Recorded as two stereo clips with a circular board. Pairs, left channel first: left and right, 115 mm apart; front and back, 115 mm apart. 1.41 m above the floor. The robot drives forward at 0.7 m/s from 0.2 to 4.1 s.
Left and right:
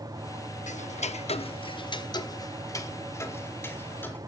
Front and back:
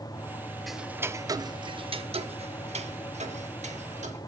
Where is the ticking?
90° left, 0.8 m; by 4.2 s 160° left, 2.5 m.